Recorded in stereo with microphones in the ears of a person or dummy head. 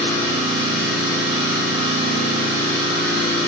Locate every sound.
0.0 s an engine running: 60° right (ahead or behind), 1.7 m